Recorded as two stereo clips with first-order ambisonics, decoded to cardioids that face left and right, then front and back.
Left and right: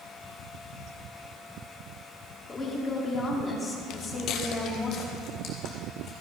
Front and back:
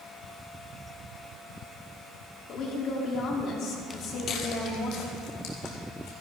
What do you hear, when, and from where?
2.5 s a woman speaking: 20° left, 1.5 m
3.9 s footsteps: 70° left, 0.7 m; by 6.1 s 30° left, 2.5 m